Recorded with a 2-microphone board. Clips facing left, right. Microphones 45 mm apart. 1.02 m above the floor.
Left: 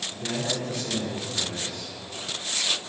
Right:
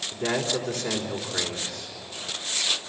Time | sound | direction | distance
0.1 | a man speaking | 50° right (ahead or behind) | 4 m